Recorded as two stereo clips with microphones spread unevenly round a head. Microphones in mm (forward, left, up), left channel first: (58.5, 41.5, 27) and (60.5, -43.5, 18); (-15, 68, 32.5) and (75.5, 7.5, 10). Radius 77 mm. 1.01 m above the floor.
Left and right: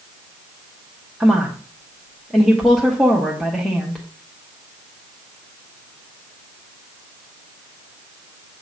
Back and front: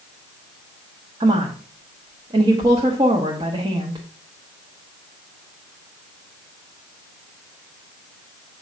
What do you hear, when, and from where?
1.2 s a woman speaking: 5° left, 1.3 m